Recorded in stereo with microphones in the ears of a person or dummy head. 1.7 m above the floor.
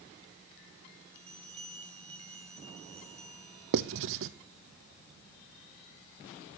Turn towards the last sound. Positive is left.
turn(degrees=-65)  # may be behind; listen again after turning